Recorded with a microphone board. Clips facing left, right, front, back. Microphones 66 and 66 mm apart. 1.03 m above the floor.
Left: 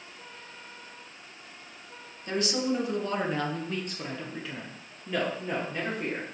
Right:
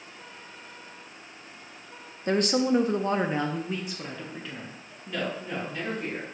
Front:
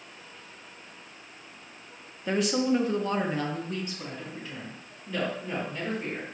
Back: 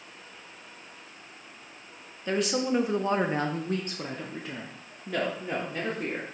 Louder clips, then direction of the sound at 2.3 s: Right 5 dB, front 1 dB; 85° right.